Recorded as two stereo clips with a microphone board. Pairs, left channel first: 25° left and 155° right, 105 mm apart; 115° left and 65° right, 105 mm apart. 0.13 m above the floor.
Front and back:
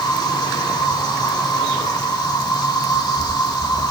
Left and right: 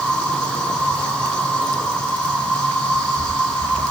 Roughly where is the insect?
Ahead left.